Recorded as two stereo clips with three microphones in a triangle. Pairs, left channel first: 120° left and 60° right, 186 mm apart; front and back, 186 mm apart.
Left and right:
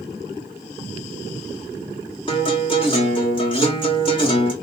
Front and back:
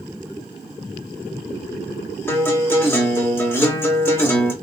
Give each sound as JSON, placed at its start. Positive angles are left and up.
{"t": 2.3, "sound": "a guitar", "azimuth_deg": 70, "distance_m": 1.4}